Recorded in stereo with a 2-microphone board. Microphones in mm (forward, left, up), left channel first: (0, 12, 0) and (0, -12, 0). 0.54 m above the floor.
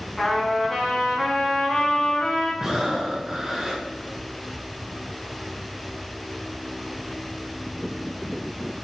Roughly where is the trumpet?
Centre.